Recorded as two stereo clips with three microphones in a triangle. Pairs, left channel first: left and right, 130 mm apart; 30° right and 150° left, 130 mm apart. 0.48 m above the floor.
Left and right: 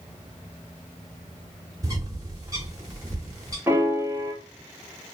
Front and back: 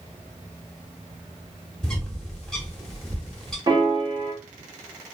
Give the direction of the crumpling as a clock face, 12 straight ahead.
No crumpling in this recording.